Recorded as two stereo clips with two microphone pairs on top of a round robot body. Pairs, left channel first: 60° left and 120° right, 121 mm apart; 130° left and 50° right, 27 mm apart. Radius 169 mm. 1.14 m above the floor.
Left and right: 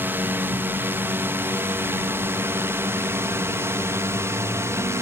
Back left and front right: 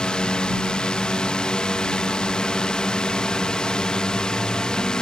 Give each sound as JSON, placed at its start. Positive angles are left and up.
{"t": 0.0, "sound": "a drone", "azimuth_deg": 170}